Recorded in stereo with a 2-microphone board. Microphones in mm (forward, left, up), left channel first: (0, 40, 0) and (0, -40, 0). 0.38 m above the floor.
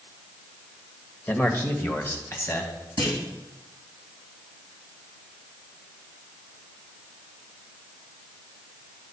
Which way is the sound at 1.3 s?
20° left (ahead or behind).